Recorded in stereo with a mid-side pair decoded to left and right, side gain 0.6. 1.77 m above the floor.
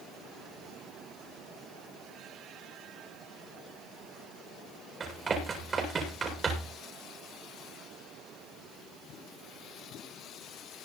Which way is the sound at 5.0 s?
30° right.